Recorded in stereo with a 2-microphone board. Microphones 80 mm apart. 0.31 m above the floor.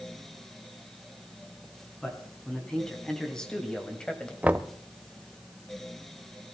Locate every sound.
2.0 s a man speaking: 10° left (ahead or behind), 3.5 m
4.4 s knocking: 20° right (ahead or behind), 0.6 m